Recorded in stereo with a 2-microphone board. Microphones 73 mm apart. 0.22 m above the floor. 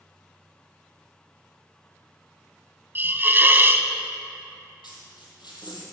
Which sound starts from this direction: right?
A hiss, at 3.0 s.